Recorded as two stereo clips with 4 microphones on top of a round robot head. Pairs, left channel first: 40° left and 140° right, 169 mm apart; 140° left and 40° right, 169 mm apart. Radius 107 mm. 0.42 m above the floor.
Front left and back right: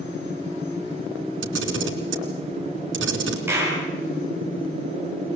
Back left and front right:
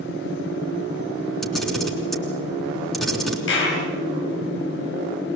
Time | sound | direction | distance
1.4 | a camera shutter | 135° right | 3.5 m
3.5 | a clap | 145° left | 7 m